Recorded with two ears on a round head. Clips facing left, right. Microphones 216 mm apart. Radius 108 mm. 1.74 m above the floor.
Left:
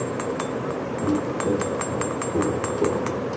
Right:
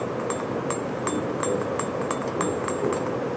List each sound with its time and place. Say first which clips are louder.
1.0 s footsteps: left 6 dB; 55° left (ahead or behind), 3 m